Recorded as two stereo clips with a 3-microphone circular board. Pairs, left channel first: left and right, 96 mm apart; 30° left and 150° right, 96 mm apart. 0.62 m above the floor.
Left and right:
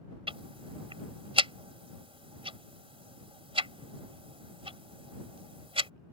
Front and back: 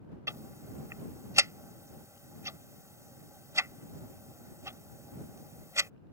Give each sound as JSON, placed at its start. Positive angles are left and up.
{"t": 0.3, "sound": "ticking", "azimuth_deg": -95}